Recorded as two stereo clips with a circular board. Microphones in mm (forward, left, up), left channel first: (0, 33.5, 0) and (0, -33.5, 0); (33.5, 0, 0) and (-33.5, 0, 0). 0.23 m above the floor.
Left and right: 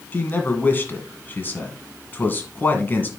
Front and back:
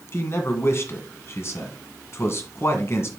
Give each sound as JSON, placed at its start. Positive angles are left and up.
{"t": 0.1, "sound": "a man speaking", "azimuth_deg": 35, "distance_m": 1.7}